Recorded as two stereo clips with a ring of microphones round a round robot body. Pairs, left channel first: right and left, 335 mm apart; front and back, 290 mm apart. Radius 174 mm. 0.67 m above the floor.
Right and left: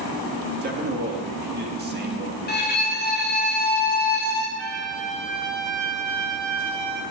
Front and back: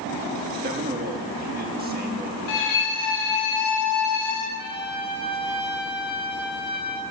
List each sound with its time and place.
0.6 s a man speaking: 135° left, 1.4 m
2.5 s a violin: 30° right, 1.3 m
4.6 s a trumpet: 75° left, 1.1 m